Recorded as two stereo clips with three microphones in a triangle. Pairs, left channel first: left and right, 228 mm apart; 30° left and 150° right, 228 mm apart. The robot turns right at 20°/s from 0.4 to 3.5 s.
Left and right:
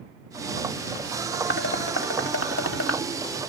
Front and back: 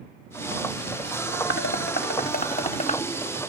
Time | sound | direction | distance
1.5 | dishes clattering | 60° left | ?